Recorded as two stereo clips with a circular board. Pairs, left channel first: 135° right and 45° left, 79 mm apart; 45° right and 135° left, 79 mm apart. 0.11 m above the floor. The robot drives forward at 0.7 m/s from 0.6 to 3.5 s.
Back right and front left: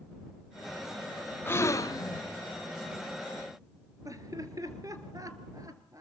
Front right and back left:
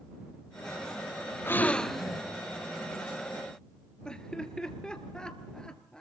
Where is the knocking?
I don't hear knocking.